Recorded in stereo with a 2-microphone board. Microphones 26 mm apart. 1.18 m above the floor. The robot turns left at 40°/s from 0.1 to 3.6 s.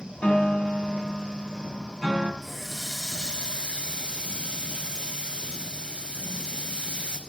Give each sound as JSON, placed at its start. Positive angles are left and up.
{"t": 0.2, "sound": "a piano", "azimuth_deg": 85, "distance_m": 3.5}
{"t": 2.4, "sound": "a running tap", "azimuth_deg": 5, "distance_m": 4.5}